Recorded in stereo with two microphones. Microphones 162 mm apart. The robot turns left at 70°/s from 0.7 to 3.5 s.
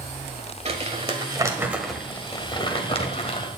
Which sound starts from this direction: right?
Crumpling, at 0.7 s.